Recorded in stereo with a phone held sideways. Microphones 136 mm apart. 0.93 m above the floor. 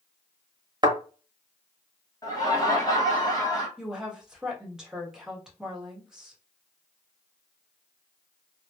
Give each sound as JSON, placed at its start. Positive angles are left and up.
{"t": 0.8, "sound": "a thud", "side_deg": -30, "distance_m": 1.2}
{"t": 2.2, "sound": "laughter", "side_deg": 25, "distance_m": 0.8}
{"t": 3.8, "sound": "a woman speaking", "side_deg": -5, "distance_m": 1.6}